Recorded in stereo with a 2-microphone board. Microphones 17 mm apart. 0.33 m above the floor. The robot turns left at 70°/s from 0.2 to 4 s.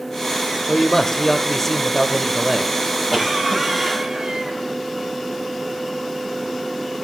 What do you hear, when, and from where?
0.7 s a man speaking: 20° left (ahead or behind), 0.9 m; by 2.7 s 10° right (ahead or behind), 0.9 m
3.1 s a cough: 20° left, 2.5 m; by 4.6 s 40° right, 2.5 m